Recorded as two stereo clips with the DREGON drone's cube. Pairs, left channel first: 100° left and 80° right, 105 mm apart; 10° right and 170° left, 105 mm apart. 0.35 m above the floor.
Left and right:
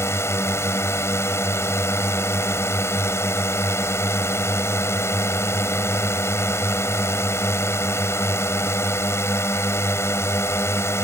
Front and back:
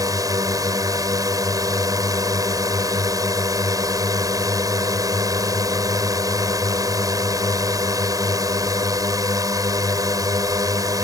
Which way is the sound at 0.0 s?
145° left.